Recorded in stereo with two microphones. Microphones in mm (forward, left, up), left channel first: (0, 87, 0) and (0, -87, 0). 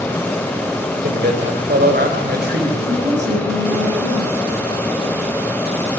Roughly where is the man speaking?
Right.